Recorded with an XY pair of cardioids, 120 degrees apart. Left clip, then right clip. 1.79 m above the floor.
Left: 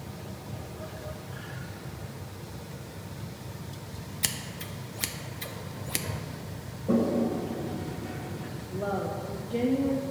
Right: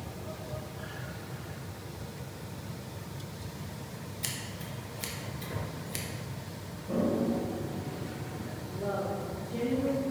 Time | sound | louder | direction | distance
4.2 | scissors | left 6 dB | 40° left | 0.6 m
6.9 | a toilet flushing | left 3 dB | 70° left | 1.3 m
8.7 | a woman speaking | left 2 dB | 40° left | 0.9 m